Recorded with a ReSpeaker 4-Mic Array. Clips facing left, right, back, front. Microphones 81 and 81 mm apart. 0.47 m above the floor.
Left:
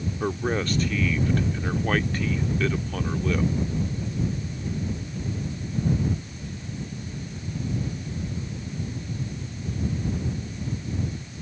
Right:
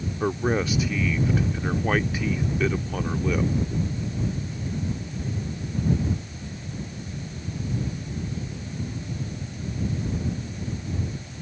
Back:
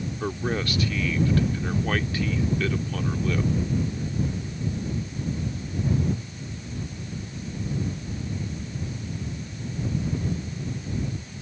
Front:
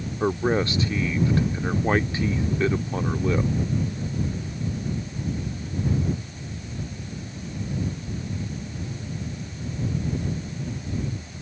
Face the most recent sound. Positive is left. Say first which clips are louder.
# right 3 dB, front 7 dB
turn(degrees=-20)